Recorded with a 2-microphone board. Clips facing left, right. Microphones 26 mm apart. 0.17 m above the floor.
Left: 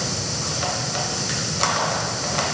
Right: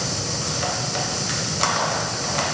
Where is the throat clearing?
No throat clearing in this recording.